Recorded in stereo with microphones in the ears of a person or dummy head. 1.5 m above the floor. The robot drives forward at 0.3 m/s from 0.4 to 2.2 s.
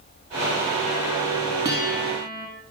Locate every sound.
1.6 s a guitar: 15° right (ahead or behind), 4 m